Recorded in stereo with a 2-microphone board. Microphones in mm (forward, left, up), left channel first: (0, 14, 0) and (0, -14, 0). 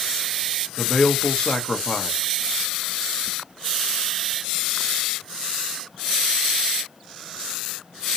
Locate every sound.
0.8 s a man speaking: 25° left (ahead or behind), 0.8 m